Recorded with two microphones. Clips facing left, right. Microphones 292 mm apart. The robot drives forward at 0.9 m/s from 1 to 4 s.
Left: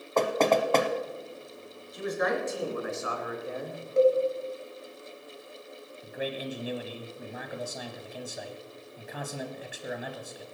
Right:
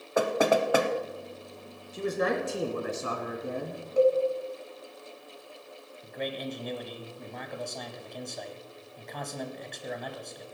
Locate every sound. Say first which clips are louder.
0.2 s knocking: even; 10° right (ahead or behind), 1.0 m
1.9 s a man speaking: right 1 dB; 35° right (ahead or behind), 3 m; by 3.8 s 55° right (ahead or behind), 2.0 m
4.0 s a cowbell: left 1 dB; 25° left (ahead or behind), 1.4 m
6.0 s a man speaking: left 1 dB; 5° left (ahead or behind), 1.2 m